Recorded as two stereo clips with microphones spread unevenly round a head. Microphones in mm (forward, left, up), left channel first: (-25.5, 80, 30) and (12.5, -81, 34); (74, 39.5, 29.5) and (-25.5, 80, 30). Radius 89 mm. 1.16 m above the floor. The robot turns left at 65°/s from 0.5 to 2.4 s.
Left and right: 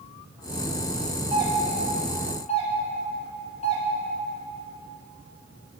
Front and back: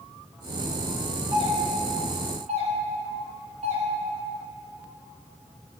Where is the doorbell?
140° right, 1.6 m; by 3.8 s 150° left, 1.6 m.